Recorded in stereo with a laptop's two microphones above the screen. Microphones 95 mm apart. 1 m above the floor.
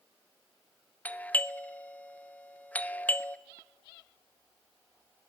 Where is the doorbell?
15° left (ahead or behind), 0.6 m.